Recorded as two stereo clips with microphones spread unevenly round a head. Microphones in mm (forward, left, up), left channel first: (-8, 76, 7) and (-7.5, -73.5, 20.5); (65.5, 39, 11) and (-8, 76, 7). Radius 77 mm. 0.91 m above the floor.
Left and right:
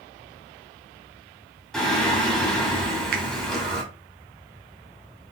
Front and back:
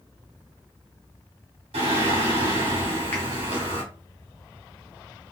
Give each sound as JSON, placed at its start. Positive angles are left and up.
{"t": 1.7, "sound": "singing", "azimuth_deg": 180, "distance_m": 1.8}
{"t": 3.1, "sound": "a finger snap", "azimuth_deg": -105, "distance_m": 0.9}